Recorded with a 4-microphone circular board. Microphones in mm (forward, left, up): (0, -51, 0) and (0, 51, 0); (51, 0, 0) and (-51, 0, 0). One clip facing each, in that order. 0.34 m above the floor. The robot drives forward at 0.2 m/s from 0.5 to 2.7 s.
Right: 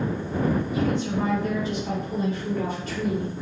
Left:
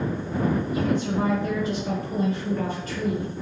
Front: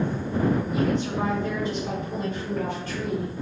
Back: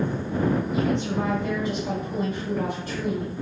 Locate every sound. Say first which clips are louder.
0.7 s a woman speaking: left 1 dB, even; 85° left, 1.3 m; by 3.3 s 110° left, 1.3 m